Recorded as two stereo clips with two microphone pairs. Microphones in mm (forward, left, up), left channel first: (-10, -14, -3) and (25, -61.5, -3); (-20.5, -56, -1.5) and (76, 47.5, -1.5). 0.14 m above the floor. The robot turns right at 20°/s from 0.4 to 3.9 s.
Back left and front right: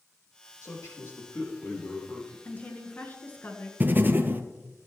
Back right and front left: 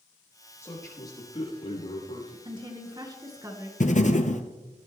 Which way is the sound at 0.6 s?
160° left.